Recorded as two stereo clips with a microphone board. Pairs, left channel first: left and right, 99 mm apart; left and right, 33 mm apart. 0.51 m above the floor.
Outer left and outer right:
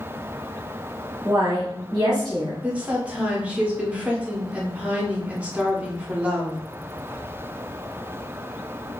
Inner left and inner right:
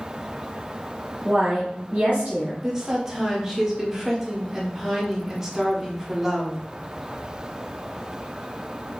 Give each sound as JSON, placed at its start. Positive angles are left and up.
{"t": 1.2, "sound": "a woman speaking", "side_deg": -40, "distance_m": 0.8}
{"t": 2.6, "sound": "a woman speaking", "side_deg": -15, "distance_m": 0.6}